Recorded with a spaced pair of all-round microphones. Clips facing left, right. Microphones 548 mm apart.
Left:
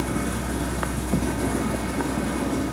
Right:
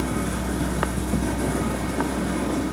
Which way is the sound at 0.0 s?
35° left (ahead or behind).